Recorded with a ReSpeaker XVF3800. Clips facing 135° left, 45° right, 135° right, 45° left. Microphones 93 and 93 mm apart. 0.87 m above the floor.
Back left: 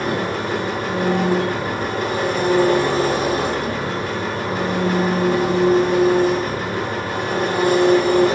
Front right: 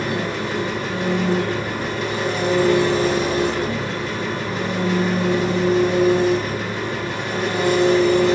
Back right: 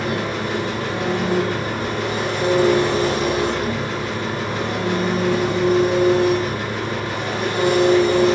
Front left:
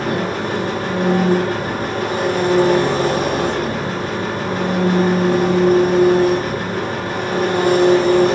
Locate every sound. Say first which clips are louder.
0.0 s an engine running: back left 2 dB, front left 3 dB; 90° left, 1.4 m